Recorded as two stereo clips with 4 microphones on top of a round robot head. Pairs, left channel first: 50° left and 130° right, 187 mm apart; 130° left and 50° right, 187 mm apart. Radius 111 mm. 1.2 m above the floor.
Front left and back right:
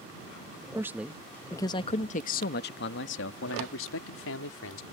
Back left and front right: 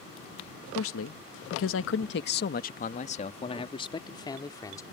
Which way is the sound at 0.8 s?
150° left.